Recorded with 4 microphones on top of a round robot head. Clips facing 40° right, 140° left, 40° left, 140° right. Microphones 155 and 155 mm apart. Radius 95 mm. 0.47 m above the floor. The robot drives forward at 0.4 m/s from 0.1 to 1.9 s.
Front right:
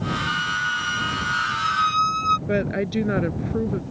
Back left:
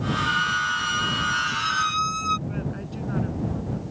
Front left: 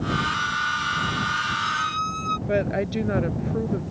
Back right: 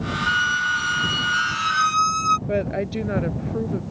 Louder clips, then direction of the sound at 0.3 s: Back left 1 dB, back right 2 dB; 120° right.